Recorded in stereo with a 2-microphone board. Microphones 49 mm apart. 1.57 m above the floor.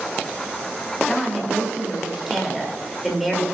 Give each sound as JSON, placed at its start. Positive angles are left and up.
{"t": 1.1, "sound": "a woman speaking", "side_deg": -5, "distance_m": 3.0}